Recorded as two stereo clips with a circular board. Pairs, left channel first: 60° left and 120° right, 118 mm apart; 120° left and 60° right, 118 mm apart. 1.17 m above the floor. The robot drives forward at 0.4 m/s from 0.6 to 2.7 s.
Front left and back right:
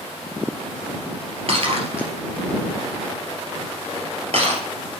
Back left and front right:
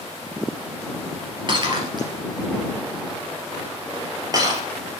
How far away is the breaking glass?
About 2 m.